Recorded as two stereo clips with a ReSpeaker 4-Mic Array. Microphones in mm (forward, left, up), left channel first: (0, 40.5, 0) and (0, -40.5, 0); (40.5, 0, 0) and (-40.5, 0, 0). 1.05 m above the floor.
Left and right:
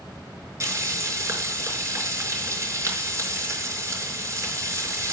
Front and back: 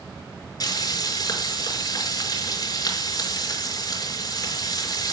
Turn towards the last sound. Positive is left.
turn(degrees=-40)